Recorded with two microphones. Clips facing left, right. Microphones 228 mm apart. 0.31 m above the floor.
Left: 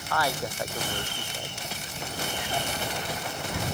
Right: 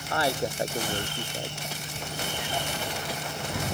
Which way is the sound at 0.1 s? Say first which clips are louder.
Right 2 dB; 30° right (ahead or behind).